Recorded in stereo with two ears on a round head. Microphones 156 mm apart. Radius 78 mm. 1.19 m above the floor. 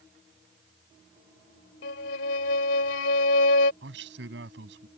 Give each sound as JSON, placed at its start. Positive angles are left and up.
{"t": 1.8, "sound": "a violin", "side_deg": 80}
{"t": 3.8, "sound": "a man speaking", "side_deg": -70}